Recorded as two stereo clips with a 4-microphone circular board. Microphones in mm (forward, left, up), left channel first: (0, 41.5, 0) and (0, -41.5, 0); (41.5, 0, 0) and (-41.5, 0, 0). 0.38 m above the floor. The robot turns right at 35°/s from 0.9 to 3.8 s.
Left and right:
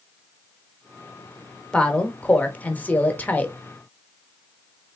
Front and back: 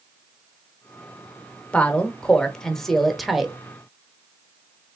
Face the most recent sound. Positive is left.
turn(degrees=110)